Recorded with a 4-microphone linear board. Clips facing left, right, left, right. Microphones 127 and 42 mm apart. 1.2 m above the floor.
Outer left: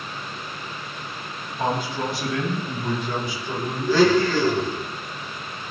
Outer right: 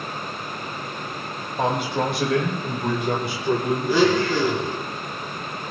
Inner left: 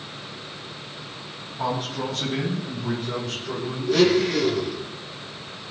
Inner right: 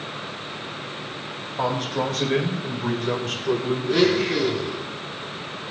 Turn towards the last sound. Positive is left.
turn(degrees=-15)  # may be behind; listen again after turning